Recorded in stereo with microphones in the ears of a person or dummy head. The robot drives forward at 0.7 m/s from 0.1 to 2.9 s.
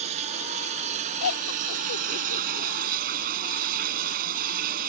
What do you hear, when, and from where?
0.0 s running water: 30° right (ahead or behind); by 4.9 s 45° right (ahead or behind)
1.2 s laughter: 75° left (ahead or behind); by 2.7 s 60° left (ahead or behind)